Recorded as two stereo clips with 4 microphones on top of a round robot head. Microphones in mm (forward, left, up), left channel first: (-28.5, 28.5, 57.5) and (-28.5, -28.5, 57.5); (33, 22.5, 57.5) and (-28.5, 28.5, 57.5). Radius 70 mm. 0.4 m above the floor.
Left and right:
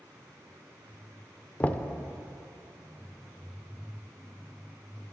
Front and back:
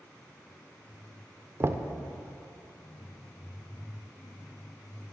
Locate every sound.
1.6 s knocking: 150° left, 0.7 m